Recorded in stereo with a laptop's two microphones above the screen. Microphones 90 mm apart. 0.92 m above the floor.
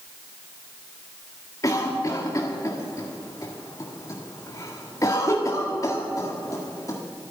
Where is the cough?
35° left (ahead or behind), 1.7 m.